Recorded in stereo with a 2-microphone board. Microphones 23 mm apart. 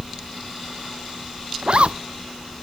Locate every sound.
1.6 s a zipper: 55° right (ahead or behind)